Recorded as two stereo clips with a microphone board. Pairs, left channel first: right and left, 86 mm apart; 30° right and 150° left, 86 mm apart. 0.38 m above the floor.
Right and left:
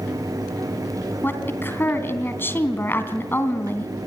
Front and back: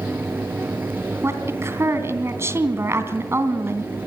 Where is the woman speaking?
155° right, 3 m.